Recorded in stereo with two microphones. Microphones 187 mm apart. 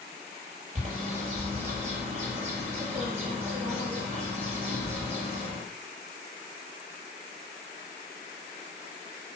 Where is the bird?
35° right (ahead or behind), 5 m.